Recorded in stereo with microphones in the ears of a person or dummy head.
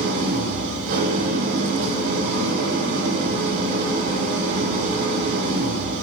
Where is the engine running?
45° right (ahead or behind), 2.5 m.